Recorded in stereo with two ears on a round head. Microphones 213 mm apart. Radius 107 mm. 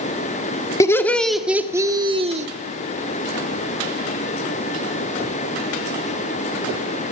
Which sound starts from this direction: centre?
Laughter, at 0.8 s.